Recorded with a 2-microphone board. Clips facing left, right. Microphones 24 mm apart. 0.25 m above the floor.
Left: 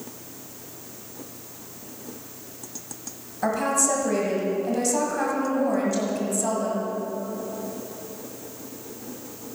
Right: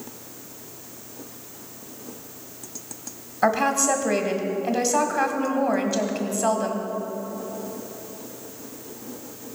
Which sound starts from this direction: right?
A woman speaking, at 3.4 s.